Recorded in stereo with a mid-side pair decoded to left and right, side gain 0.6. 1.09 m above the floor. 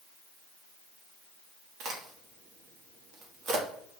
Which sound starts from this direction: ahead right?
A crack, at 1.8 s.